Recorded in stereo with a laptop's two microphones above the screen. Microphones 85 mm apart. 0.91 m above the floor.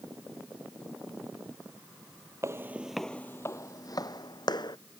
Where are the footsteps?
35° right (ahead or behind); by 4.8 s 55° left (ahead or behind).